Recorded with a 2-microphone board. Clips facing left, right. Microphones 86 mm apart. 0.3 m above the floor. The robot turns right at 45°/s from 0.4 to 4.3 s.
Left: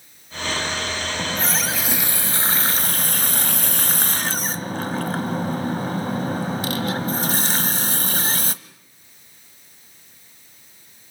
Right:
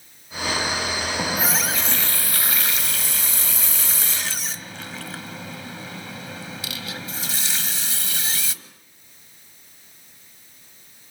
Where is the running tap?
20° right, 1.1 m; by 8.5 s 120° left, 1.1 m.